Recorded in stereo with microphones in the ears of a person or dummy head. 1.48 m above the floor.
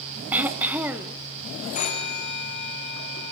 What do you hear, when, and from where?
0.3 s throat clearing: 5° right (ahead or behind), 1.0 m
1.8 s a phone ringing: 35° left (ahead or behind), 3 m